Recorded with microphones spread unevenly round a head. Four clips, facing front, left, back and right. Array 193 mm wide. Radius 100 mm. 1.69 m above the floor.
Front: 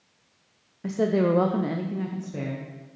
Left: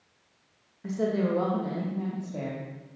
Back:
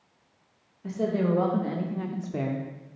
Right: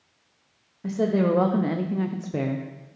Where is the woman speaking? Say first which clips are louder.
Right 5 dB, front 4 dB; 15° right, 1.0 m; by 2.7 s 100° right, 1.0 m.